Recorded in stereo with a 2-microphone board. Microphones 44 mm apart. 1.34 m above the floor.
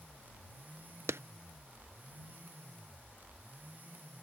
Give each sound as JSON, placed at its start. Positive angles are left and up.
{"t": 1.1, "sound": "a clap", "side_deg": -80}